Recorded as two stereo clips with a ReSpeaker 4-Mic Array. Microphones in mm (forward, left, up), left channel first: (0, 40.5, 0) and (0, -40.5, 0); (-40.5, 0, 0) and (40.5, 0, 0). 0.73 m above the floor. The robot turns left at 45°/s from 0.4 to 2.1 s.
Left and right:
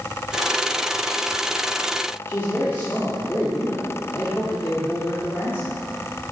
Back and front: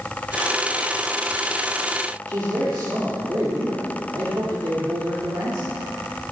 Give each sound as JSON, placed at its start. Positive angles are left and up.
{"t": 2.3, "sound": "a man speaking", "azimuth_deg": 35, "distance_m": 1.8}